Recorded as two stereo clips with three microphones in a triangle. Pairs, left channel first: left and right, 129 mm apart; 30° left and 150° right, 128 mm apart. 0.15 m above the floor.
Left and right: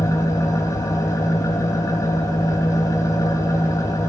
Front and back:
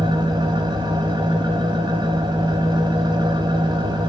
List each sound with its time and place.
0.0 s an engine running: 155° left, 4.5 m